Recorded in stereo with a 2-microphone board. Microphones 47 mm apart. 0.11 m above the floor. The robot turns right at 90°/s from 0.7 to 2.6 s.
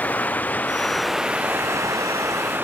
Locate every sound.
0.0 s running water: 145° left; by 2.6 s 45° right